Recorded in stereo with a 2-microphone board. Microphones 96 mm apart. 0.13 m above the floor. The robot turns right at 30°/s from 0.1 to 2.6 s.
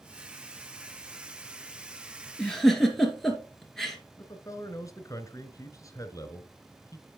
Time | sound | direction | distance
2.4 | a giggle | 10° left (ahead or behind) | 2 m
4.2 | a man speaking | 35° left (ahead or behind) | 1.3 m